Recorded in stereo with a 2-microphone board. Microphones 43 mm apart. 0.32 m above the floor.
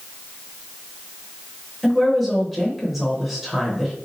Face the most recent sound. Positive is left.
turn(degrees=-5)  # may be behind; listen again after turning